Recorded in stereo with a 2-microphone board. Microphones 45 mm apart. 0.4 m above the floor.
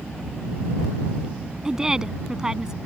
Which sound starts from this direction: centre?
A woman speaking, at 1.6 s.